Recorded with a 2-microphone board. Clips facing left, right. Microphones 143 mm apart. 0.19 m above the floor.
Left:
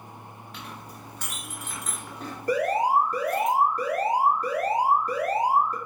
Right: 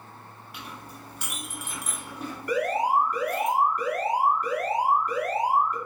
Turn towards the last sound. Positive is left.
turn(degrees=35)  # may be behind; listen again after turning